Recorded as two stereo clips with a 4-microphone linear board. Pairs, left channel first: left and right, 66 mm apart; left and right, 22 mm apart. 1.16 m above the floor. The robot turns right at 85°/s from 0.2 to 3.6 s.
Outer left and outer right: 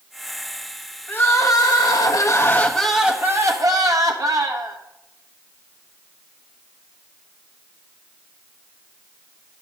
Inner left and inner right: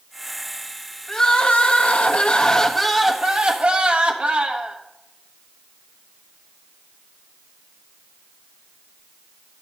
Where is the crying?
25° left, 1.0 m; by 4.8 s 120° right, 1.0 m.